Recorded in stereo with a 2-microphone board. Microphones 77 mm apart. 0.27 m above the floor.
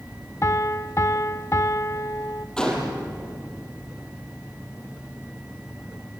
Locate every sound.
0.4 s a piano: 40° left (ahead or behind), 0.5 m
2.6 s a gunshot: 10° left (ahead or behind), 5.5 m